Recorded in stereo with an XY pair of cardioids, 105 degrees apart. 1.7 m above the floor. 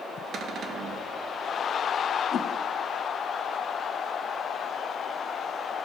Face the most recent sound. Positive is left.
turn(degrees=45)